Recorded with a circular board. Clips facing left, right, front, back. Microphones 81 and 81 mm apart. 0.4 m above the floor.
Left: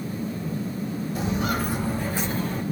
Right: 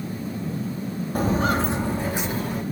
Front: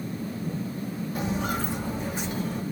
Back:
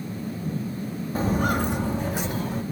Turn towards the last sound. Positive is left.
turn(degrees=-170)